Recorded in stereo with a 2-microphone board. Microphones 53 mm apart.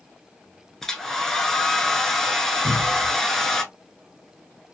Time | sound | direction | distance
0.8 | a hair dryer | 10° left (ahead or behind) | 0.6 m
2.6 | a cupboard door | 10° left (ahead or behind) | 1.6 m